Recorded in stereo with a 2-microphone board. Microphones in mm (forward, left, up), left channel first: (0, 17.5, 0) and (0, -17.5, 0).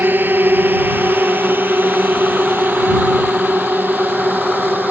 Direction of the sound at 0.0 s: 70° right (ahead or behind).